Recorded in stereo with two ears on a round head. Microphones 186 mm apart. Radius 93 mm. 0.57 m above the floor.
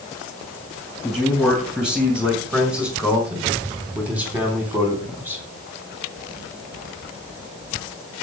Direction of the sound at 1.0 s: 5° right (ahead or behind).